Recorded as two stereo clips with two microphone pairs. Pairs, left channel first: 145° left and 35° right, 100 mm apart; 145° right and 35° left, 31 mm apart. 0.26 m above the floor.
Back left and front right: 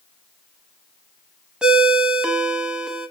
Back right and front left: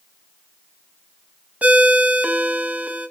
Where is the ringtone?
45° left, 0.6 m.